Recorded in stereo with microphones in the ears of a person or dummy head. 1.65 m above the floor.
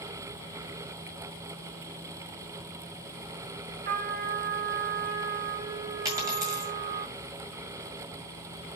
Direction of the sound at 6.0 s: 20° right (ahead or behind).